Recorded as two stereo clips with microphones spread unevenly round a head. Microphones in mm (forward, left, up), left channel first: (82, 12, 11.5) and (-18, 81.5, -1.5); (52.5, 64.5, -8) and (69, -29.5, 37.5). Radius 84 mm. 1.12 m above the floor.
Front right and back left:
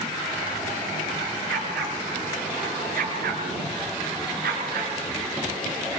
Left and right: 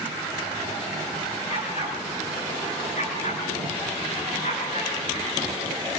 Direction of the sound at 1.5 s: 155° left.